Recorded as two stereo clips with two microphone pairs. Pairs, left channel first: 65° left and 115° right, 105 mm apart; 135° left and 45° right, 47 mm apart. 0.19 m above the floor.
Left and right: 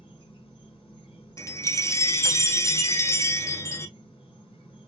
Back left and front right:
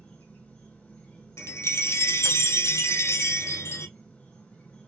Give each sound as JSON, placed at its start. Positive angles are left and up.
{"t": 0.0, "sound": "an insect", "azimuth_deg": 80, "distance_m": 2.0}
{"t": 1.4, "sound": "a chime", "azimuth_deg": 125, "distance_m": 0.5}